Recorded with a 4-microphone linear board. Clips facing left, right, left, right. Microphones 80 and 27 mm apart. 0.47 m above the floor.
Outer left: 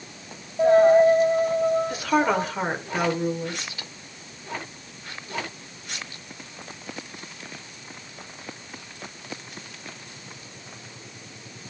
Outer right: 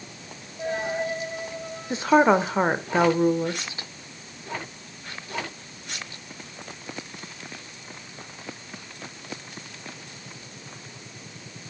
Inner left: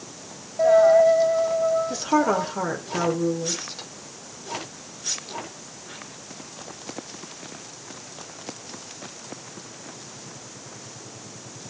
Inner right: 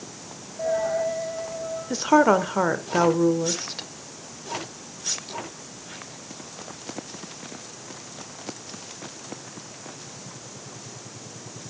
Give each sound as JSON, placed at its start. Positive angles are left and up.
{"t": 0.6, "sound": "a dropped coin", "side_deg": 45, "distance_m": 2.5}
{"t": 1.9, "sound": "a woman speaking", "side_deg": -30, "distance_m": 1.3}